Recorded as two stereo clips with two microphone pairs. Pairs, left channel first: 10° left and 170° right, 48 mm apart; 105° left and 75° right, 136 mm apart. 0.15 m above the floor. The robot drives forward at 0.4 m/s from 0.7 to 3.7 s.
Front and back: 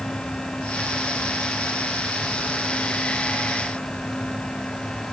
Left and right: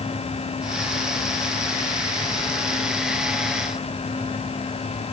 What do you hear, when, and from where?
Only background noise.